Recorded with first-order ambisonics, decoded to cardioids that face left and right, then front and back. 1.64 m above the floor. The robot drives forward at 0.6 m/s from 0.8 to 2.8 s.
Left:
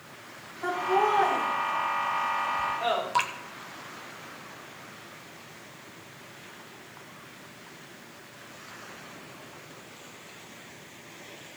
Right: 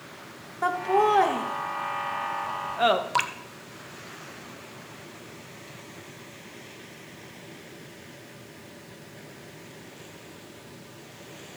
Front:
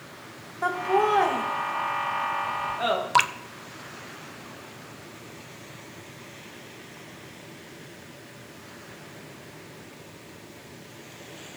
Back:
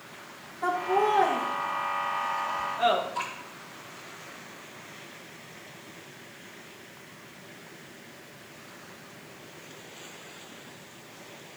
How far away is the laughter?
About 2.5 m.